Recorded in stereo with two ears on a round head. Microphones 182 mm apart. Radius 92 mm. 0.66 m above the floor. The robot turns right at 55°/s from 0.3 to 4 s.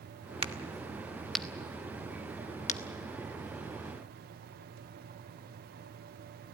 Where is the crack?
25° right (ahead or behind), 1.1 m; by 2.8 s 35° left (ahead or behind), 1.1 m.